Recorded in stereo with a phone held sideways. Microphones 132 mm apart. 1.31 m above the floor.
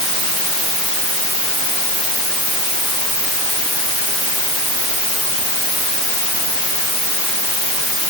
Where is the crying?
No crying in this recording.